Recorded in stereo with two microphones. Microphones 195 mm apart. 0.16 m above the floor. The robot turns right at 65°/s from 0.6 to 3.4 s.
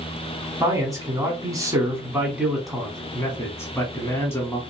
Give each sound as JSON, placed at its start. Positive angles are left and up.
{"t": 0.6, "sound": "a man speaking", "side_deg": -15, "distance_m": 1.0}